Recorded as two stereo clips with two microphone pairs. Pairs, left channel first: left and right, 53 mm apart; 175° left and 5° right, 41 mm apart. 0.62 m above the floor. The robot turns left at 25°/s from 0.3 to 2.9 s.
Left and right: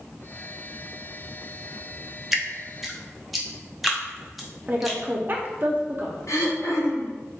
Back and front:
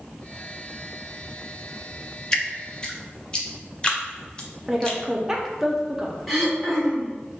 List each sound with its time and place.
2.3 s dripping: 155° right, 0.6 m; by 5.0 s 170° right, 0.6 m
4.7 s a woman speaking: 80° right, 0.6 m
6.3 s throat clearing: 85° left, 0.9 m